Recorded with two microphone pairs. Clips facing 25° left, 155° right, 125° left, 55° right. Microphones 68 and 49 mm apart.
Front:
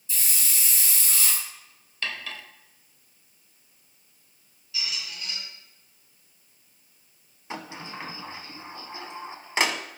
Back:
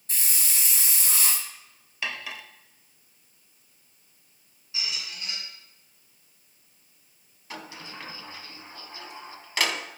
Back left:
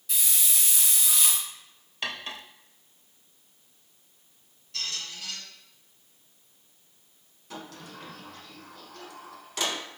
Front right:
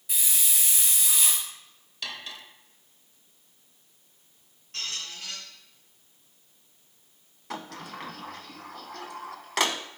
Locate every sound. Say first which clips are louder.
0.1 s a hiss: even, even; 130° right, 2.5 m
2.0 s cutlery clinking: even, back left 3 dB; 140° left, 0.6 m
4.7 s a squeak: front 1 dB, even; 100° right, 3 m
7.5 s a sliding door: front 4 dB, front right 4 dB; 45° right, 0.6 m